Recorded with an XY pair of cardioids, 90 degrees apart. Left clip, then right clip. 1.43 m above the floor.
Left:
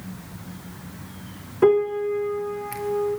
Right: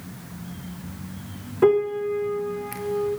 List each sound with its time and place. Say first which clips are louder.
1.6 s a piano: left 1 dB; 5° left, 0.5 m